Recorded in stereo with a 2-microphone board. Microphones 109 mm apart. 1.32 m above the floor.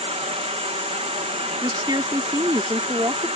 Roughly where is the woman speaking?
Right.